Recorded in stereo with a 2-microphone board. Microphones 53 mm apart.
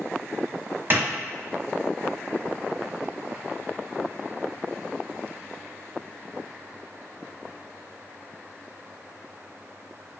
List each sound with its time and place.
0.9 s a clap: 35° right (ahead or behind), 1.0 m